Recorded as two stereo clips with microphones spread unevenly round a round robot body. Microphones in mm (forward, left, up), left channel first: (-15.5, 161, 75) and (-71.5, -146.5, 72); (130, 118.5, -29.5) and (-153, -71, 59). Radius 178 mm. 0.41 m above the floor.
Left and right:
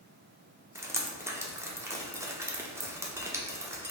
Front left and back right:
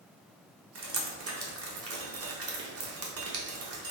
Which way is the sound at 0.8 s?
170° right.